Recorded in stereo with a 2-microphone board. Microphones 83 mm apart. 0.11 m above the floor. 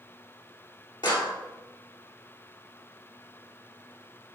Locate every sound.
1.0 s a clap: 65° left (ahead or behind), 2.5 m